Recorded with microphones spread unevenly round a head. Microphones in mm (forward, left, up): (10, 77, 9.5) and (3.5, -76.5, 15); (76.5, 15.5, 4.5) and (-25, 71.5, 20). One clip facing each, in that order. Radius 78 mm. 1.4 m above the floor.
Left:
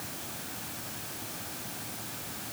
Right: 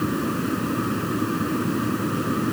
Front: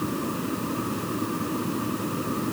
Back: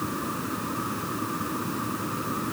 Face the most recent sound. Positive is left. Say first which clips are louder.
# right 21 dB, front 3 dB
turn(degrees=-105)